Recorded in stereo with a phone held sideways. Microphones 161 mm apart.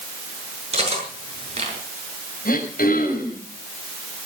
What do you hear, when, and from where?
0.7 s cutlery clinking: 40° right (ahead or behind), 7.5 m
2.5 s throat clearing: 70° left (ahead or behind), 5.5 m